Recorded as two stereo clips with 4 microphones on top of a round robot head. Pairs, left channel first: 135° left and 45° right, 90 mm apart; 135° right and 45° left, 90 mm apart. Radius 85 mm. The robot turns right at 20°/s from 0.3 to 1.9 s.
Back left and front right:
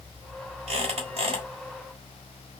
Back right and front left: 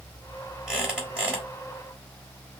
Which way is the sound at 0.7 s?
40° right.